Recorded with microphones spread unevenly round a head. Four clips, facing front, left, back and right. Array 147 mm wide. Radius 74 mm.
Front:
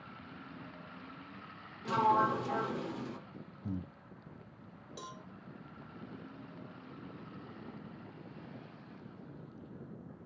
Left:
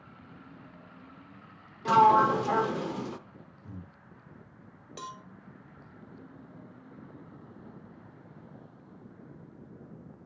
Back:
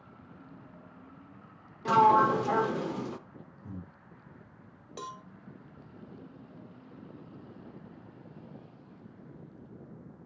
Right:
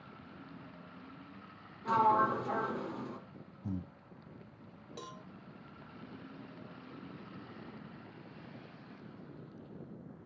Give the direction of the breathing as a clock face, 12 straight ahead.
2 o'clock.